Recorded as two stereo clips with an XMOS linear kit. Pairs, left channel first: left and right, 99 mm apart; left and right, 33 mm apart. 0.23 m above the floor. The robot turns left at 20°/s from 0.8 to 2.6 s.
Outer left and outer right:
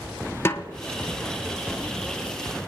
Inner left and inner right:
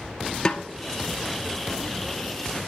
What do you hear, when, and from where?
0.5 s a snare drum: 25° left (ahead or behind), 0.7 m